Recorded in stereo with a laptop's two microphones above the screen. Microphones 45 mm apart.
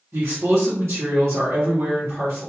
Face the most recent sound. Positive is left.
turn(degrees=-70)  # may be behind; listen again after turning